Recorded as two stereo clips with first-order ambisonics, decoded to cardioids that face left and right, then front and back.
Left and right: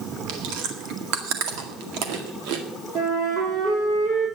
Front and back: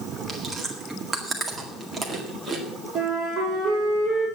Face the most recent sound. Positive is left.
turn(degrees=-120)